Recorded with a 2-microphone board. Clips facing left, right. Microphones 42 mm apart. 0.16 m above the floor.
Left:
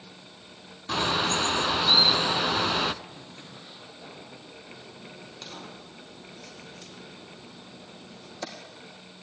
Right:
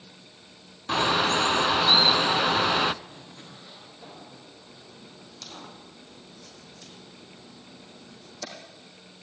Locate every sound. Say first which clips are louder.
0.9 s a bird: right 3 dB; 15° right (ahead or behind), 0.5 m
3.0 s a zipper: left 1 dB; 5° left (ahead or behind), 8.5 m
4.7 s a crack: left 3 dB; 30° left (ahead or behind), 4 m